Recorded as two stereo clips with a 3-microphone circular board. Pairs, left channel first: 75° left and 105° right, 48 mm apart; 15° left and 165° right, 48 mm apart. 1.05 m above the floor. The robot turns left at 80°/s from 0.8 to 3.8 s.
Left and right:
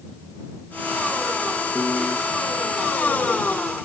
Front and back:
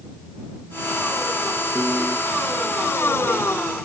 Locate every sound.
1.8 s a piano: 160° left; by 2.2 s 125° left